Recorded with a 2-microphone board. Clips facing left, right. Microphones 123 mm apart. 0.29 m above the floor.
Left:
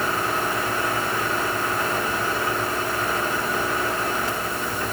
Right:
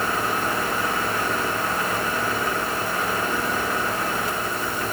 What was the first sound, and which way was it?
Only background noise.